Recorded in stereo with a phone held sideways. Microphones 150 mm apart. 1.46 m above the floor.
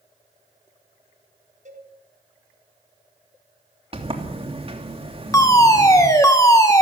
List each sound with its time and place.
1.6 s a cowbell: 55° right (ahead or behind), 4.5 m
3.9 s a sliding door: 40° right (ahead or behind), 3 m
5.3 s a fire alarm: 20° left (ahead or behind), 2.5 m